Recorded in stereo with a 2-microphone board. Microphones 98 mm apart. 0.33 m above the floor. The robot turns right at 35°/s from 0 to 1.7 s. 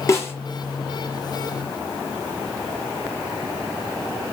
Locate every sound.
0.1 s a snare drum: 30° left (ahead or behind), 5.5 m; by 0.3 s 20° left (ahead or behind), 5.5 m